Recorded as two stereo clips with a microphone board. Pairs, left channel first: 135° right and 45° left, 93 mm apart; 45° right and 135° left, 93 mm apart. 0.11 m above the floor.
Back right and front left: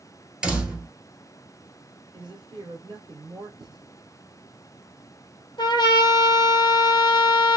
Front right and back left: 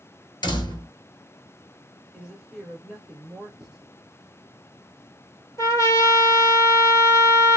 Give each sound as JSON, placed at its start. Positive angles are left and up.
{"t": 0.4, "sound": "a door slam", "azimuth_deg": -30, "distance_m": 1.3}
{"t": 2.1, "sound": "a woman speaking", "azimuth_deg": 55, "distance_m": 2.0}
{"t": 3.6, "sound": "writing", "azimuth_deg": 50, "distance_m": 2.5}
{"t": 5.6, "sound": "a trumpet", "azimuth_deg": -100, "distance_m": 0.9}